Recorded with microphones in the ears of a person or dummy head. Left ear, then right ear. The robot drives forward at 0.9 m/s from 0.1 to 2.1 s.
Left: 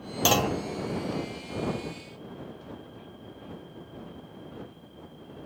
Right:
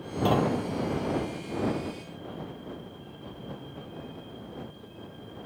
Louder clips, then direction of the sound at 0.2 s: Left 2 dB; 65° left (ahead or behind).